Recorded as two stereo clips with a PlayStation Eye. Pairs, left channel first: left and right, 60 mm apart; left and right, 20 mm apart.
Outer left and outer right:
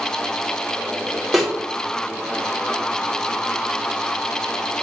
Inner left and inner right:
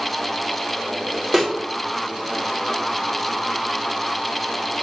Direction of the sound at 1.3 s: Centre (ahead or behind).